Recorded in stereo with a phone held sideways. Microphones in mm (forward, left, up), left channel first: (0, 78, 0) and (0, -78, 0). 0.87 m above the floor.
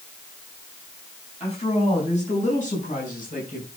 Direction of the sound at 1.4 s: 40° left (ahead or behind).